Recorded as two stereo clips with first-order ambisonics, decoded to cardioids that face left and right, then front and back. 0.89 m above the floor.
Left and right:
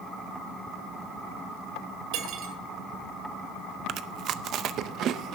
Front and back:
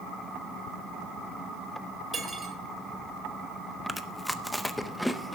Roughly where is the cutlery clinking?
Right.